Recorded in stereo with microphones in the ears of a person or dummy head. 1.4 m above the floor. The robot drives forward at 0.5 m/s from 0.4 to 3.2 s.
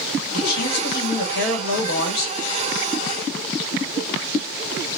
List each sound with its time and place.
0.3 s a man speaking: 50° left (ahead or behind), 1.7 m; by 2.4 s 85° left, 1.3 m